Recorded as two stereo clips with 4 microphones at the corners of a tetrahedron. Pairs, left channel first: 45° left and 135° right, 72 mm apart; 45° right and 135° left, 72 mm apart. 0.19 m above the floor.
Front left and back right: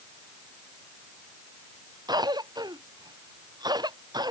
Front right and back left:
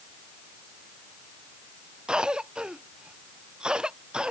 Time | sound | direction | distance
2.1 | a cough | 150° right | ?